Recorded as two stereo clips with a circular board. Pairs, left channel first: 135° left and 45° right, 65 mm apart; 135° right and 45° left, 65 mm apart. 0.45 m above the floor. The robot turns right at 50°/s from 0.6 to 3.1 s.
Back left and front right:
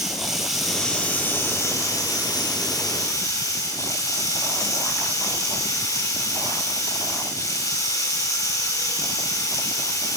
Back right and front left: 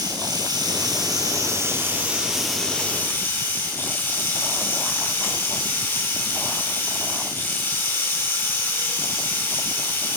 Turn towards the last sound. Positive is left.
turn(degrees=165)